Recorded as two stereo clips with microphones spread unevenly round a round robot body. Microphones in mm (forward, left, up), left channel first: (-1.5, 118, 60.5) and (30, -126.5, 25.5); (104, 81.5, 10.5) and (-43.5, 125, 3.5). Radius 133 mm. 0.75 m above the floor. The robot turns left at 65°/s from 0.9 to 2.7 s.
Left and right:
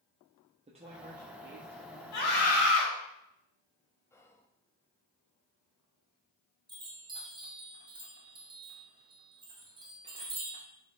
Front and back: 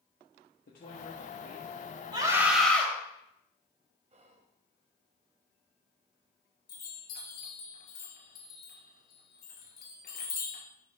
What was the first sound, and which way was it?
A woman speaking, 30° right.